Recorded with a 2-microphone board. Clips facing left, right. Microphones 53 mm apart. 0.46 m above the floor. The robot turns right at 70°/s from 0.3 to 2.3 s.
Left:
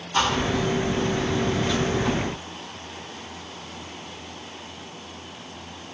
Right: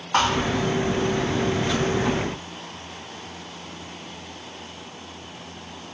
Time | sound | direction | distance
0.1 | a thud | 60° right (ahead or behind) | 8.5 m